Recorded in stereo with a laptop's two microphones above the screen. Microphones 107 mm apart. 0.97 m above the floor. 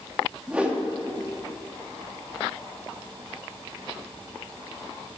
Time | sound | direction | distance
0.5 | a whoosh | 10° right (ahead or behind) | 1.6 m